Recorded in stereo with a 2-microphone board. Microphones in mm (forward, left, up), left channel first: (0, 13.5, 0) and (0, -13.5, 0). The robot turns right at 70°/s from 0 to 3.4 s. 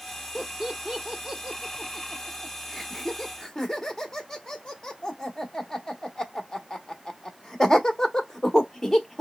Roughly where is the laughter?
Centre.